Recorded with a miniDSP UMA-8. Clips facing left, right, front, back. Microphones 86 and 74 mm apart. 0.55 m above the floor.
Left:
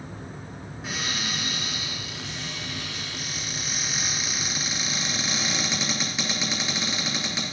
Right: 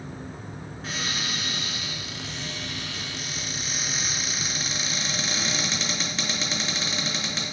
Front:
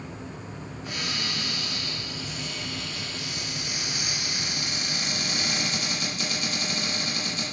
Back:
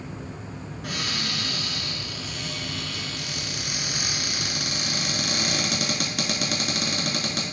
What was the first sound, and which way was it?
A cupboard door, 170° left.